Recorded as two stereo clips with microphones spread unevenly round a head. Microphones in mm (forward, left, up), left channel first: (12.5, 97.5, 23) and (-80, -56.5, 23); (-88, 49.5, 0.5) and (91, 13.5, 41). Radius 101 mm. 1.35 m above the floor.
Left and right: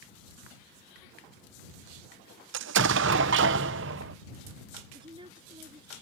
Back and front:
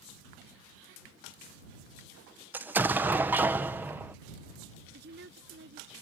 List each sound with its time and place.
2.5 s an explosion: 95° right
4.9 s a woman speaking: 50° right